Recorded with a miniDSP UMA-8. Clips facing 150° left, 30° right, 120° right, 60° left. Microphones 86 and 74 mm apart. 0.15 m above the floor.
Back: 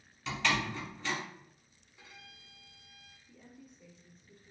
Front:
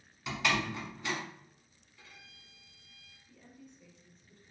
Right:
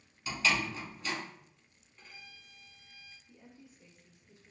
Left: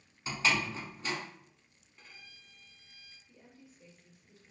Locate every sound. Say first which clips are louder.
0.3 s a door slam: even, even; 40° left, 1.2 m
2.0 s a violin: back 2 dB, right 2 dB; 140° left, 0.9 m
3.3 s a woman speaking: even, even; 135° right, 1.0 m